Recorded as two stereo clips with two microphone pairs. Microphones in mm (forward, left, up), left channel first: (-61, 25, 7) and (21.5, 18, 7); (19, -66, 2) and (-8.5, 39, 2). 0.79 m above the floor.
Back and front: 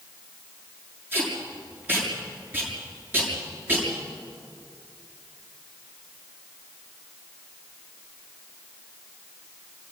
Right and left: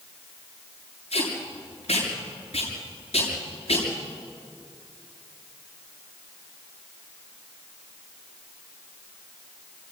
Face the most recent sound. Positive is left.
turn(degrees=-70)